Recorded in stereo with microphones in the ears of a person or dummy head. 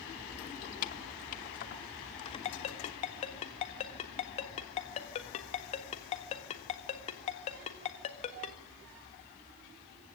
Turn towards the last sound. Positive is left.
turn(degrees=30)  # may be behind; listen again after turning